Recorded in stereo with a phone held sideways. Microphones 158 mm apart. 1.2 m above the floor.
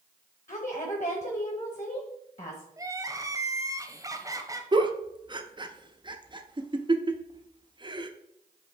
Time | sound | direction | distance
0.5 | a woman speaking | 45° left (ahead or behind) | 1.0 m
2.8 | crying | 20° right (ahead or behind) | 0.7 m
4.7 | a giggle | 30° right (ahead or behind) | 0.6 m